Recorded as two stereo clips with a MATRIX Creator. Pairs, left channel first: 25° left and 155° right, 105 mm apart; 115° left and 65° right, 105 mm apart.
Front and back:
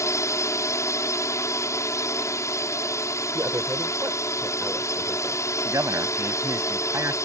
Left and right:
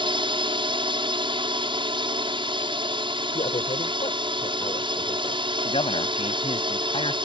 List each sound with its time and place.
0.0 s a drone: 35° right
3.3 s a man speaking: 135° left
5.7 s a man speaking: 140° left